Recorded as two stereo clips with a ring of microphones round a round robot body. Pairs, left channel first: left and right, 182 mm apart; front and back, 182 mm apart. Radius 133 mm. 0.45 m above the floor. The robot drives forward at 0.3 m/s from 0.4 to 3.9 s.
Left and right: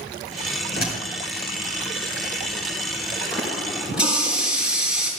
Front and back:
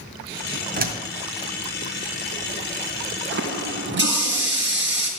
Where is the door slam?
145° left, 2 m.